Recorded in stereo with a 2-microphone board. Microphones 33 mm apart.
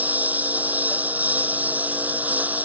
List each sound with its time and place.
0.0 s a lawn mower: 55° right (ahead or behind)